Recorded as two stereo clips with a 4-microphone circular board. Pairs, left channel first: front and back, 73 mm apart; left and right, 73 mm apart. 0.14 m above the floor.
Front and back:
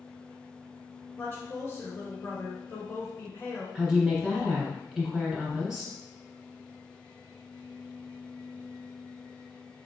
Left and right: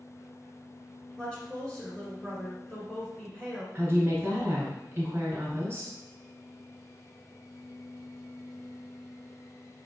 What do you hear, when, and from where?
1.2 s a woman speaking: 20° left, 1.6 m
3.8 s a woman speaking: 95° right, 1.4 m